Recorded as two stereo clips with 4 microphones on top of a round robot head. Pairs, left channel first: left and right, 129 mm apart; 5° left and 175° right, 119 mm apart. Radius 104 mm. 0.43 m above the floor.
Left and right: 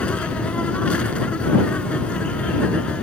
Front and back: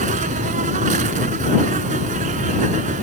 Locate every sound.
0.0 s an insect: 175° left